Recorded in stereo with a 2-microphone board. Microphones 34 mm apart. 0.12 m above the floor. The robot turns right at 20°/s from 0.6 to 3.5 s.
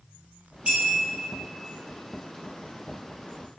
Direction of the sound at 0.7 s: 35° right (ahead or behind).